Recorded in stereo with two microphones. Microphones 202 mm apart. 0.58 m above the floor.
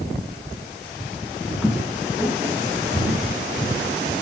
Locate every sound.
1.6 s footsteps: 5° right (ahead or behind), 1.0 m; by 3.9 s 15° right (ahead or behind), 2.5 m